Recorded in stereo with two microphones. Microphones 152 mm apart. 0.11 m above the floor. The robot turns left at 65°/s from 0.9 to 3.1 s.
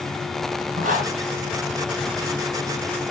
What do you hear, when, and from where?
0.8 s a zipper: 60° right (ahead or behind), 3 m; by 1.1 s 50° right (ahead or behind), 3 m